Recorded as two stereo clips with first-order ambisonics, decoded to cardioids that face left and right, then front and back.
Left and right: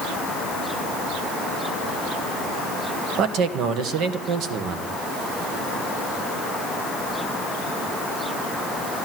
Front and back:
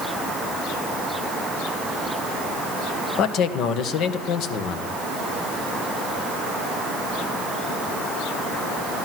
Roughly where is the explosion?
I don't hear an explosion.